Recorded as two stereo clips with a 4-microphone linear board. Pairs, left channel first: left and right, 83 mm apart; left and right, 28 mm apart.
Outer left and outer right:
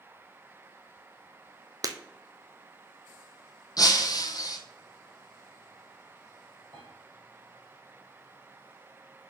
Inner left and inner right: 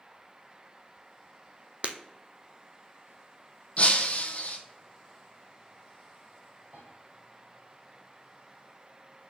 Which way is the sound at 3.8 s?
50° left (ahead or behind).